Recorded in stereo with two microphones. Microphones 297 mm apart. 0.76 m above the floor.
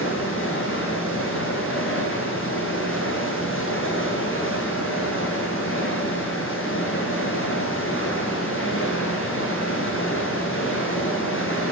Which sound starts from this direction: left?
Running water, at 0.0 s.